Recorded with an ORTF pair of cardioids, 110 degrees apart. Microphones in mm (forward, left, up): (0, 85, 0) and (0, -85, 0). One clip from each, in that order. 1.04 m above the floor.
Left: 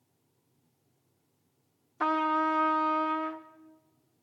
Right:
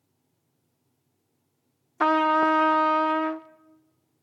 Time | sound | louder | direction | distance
2.0 | a trumpet | right 7 dB | 35° right | 0.7 m